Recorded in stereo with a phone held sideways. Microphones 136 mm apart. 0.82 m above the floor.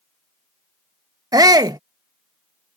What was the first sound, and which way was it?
A shout, 25° right (ahead or behind).